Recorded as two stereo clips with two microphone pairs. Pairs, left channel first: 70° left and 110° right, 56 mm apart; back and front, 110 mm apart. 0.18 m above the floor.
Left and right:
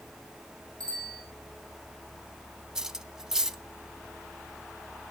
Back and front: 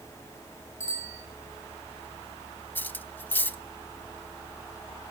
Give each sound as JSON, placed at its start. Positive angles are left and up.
{"t": 0.8, "sound": "a bicycle bell", "azimuth_deg": -115, "distance_m": 7.0}
{"t": 2.8, "sound": "cutlery clinking", "azimuth_deg": -155, "distance_m": 0.6}